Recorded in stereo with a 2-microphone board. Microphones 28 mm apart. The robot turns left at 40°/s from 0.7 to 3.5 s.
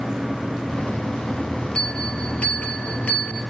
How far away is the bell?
About 2.5 m.